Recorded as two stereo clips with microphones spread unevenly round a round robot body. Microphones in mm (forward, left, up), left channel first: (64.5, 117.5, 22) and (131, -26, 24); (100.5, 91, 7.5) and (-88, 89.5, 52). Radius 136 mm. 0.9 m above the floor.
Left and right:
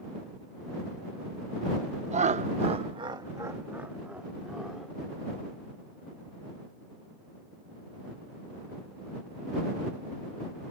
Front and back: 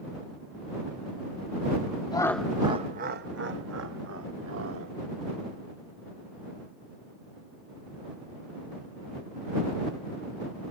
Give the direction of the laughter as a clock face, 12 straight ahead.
1 o'clock.